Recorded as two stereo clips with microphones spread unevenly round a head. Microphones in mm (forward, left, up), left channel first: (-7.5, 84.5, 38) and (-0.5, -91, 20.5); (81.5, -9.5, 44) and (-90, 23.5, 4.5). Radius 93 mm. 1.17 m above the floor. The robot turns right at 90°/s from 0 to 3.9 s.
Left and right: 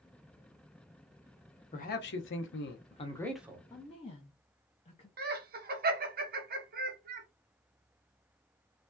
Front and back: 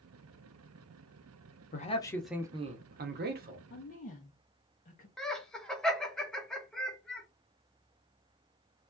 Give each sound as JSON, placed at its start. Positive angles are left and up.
{"t": 1.7, "sound": "a man speaking", "azimuth_deg": 40, "distance_m": 0.8}
{"t": 3.7, "sound": "a woman speaking", "azimuth_deg": 20, "distance_m": 0.8}
{"t": 5.2, "sound": "laughter", "azimuth_deg": -105, "distance_m": 0.9}